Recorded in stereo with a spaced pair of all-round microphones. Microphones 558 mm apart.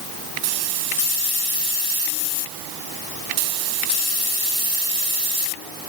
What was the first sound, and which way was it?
Only background noise.